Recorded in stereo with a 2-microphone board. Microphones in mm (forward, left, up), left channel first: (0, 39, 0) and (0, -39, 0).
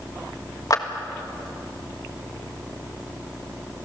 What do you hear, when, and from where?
0.7 s a clap: 50° left (ahead or behind), 1.5 m